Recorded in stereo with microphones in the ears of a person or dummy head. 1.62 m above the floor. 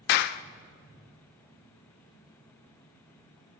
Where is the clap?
55° left (ahead or behind), 0.6 m.